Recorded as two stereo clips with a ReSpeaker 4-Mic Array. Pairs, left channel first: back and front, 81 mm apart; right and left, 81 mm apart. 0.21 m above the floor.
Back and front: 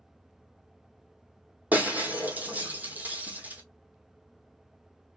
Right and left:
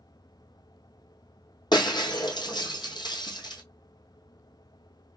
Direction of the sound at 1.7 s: 70° right.